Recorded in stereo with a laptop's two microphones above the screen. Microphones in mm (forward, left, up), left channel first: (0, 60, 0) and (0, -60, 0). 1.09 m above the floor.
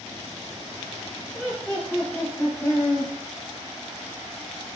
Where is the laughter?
15° left (ahead or behind), 1.7 m; by 3.1 s 15° right (ahead or behind), 2.5 m.